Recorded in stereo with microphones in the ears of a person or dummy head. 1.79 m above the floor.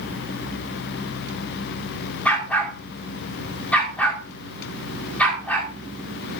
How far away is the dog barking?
About 2.5 m.